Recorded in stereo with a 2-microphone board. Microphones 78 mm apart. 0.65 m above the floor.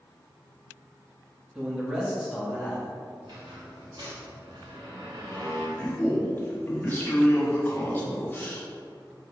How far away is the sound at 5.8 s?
About 1.2 m.